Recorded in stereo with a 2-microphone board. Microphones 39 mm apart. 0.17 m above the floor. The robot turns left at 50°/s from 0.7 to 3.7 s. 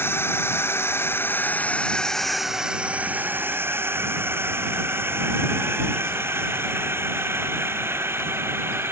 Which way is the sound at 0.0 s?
75° left (ahead or behind).